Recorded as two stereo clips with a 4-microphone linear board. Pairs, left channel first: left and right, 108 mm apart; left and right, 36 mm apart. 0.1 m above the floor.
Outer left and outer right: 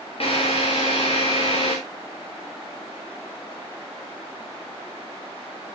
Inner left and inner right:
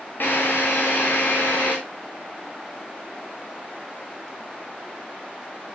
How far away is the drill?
About 6.5 m.